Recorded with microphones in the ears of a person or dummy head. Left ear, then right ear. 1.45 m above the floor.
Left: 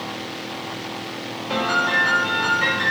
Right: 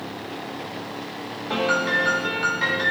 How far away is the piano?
About 0.7 m.